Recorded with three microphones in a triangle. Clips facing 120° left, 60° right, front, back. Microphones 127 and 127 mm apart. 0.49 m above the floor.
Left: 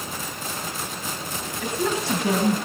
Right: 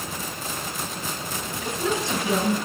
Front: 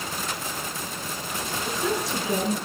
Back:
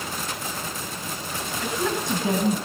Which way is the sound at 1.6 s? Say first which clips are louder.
Left 1 dB, back 1 dB; 140° left.